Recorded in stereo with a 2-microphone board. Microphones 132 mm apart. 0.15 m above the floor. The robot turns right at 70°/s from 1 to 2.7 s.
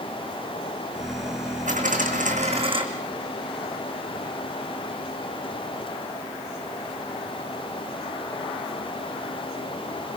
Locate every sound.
1.7 s a dropped coin: 115° right, 3.5 m; by 2.8 s 40° right, 3.5 m